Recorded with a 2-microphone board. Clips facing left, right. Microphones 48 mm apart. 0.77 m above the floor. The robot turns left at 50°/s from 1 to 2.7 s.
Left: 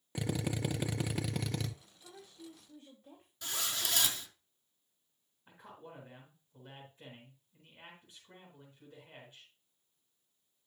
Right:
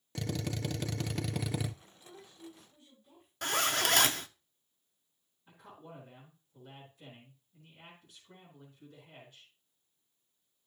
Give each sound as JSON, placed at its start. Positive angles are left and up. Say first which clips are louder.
{"t": 0.1, "sound": "a drill", "louder": "left 1 dB", "azimuth_deg": 15, "distance_m": 0.7}
{"t": 2.0, "sound": "a woman speaking", "louder": "right 1 dB", "azimuth_deg": 130, "distance_m": 4.0}
{"t": 3.4, "sound": "a zipper", "louder": "right 8 dB", "side_deg": -55, "distance_m": 0.6}
{"t": 5.5, "sound": "a man speaking", "louder": "even", "side_deg": 25, "distance_m": 3.5}